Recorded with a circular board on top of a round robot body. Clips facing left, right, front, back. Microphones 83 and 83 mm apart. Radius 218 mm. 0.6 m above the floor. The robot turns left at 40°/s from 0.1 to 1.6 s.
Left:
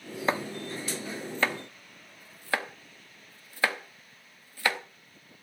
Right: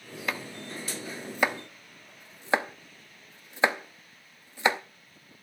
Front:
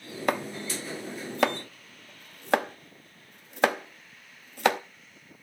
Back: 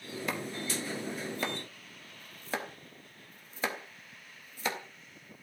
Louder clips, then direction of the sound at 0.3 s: Left 5 dB, front 8 dB; 30° left.